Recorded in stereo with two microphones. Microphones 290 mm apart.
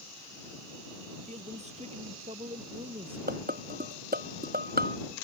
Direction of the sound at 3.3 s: 30° right (ahead or behind).